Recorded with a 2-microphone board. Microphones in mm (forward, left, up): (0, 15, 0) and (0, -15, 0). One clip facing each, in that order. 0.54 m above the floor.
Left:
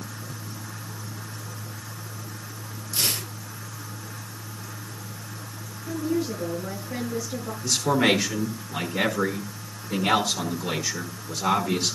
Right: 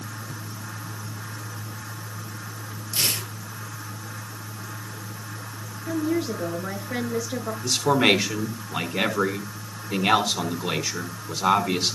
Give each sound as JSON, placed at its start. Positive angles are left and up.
{"t": 2.9, "sound": "tearing paper", "side_deg": -40, "distance_m": 6.0}
{"t": 5.9, "sound": "a woman speaking", "side_deg": -55, "distance_m": 6.5}
{"t": 7.6, "sound": "a man speaking", "side_deg": -35, "distance_m": 5.0}